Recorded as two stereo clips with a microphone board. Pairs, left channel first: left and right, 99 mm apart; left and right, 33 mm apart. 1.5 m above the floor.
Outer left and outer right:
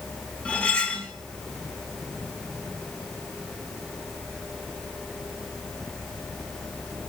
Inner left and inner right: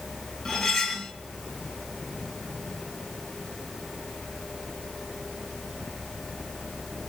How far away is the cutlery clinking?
About 0.9 m.